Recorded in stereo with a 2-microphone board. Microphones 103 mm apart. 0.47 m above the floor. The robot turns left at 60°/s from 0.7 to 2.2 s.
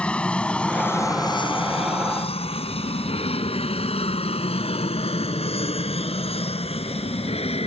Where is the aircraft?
10° left (ahead or behind); by 7.7 s 75° left (ahead or behind).